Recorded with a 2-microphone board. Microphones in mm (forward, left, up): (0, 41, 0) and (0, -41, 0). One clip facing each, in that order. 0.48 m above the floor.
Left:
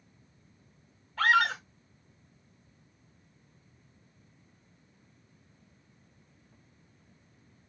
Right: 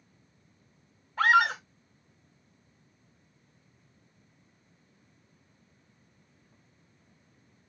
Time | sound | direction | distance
1.2 | a scream | 15° right (ahead or behind) | 1.8 m